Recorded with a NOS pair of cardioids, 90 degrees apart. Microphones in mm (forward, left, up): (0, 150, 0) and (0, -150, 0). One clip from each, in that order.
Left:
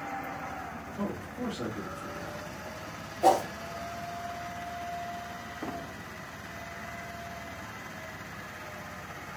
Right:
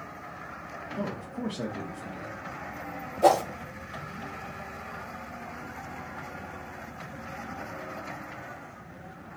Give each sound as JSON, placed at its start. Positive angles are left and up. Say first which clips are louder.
{"t": 1.0, "sound": "a man speaking", "louder": "right 1 dB", "azimuth_deg": -65, "distance_m": 1.2}
{"t": 3.2, "sound": "a whoosh", "louder": "right 2 dB", "azimuth_deg": -40, "distance_m": 1.6}